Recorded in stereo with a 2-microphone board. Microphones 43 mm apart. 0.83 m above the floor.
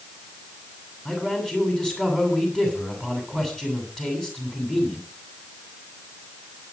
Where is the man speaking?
15° left (ahead or behind), 8 m.